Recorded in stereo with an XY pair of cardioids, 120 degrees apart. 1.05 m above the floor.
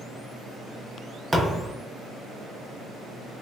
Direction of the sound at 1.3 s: 20° right.